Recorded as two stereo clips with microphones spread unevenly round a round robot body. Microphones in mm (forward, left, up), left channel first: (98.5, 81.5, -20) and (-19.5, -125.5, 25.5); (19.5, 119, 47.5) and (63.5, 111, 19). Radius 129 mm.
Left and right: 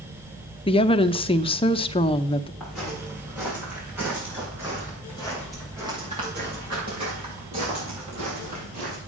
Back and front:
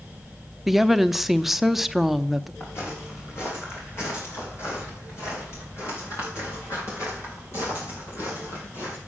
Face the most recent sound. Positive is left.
turn(degrees=180)